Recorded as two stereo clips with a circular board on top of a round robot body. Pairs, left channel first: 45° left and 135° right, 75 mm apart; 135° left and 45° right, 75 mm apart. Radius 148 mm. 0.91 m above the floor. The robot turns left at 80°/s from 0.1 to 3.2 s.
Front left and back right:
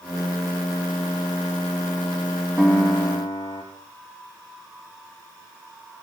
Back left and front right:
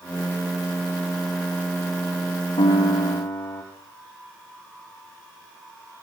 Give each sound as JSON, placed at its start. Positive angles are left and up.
{"t": 2.6, "sound": "a piano", "azimuth_deg": 135, "distance_m": 6.0}